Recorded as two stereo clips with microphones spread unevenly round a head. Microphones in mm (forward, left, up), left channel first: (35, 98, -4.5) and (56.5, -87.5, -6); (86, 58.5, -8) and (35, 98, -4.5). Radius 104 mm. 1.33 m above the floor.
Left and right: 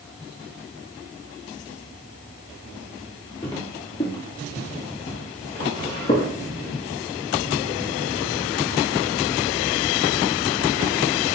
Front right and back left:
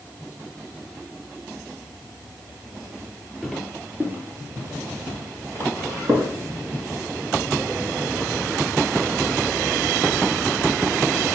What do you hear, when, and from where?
3.4 s footsteps: 60° left, 1.3 m; by 6.3 s 140° left, 2 m